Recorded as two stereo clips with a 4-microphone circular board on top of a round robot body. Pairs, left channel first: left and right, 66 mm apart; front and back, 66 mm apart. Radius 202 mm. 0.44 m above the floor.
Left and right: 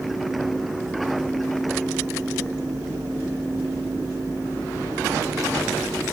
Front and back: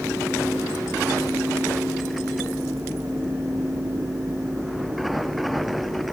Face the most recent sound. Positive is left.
No sound to turn to.